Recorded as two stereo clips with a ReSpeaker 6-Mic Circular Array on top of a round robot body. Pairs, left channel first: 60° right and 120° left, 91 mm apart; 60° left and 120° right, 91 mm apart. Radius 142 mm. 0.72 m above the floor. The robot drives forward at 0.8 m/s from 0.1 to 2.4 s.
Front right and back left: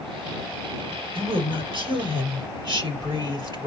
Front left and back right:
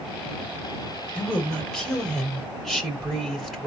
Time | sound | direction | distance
1.1 | a woman speaking | 135° left | 3 m